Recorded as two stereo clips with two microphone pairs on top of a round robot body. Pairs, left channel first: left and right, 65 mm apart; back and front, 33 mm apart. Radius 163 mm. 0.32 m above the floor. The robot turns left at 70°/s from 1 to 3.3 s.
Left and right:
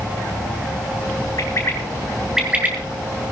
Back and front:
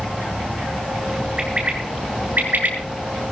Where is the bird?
65° left, 6 m; by 2.8 s 30° right, 6 m.